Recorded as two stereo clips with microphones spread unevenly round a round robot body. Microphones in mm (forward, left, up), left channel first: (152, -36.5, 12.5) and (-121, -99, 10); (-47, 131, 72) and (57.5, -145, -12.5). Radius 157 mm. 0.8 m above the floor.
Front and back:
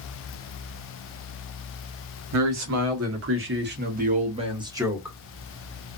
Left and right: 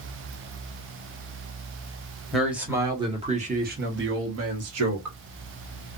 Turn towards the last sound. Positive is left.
turn(degrees=-85)